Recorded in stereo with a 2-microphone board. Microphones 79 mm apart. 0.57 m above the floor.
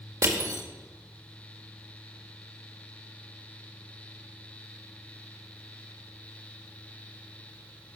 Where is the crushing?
40° right (ahead or behind), 1.8 m.